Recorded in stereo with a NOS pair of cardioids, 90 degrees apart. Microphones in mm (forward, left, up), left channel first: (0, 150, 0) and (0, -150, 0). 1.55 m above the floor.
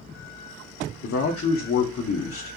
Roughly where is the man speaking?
Ahead left.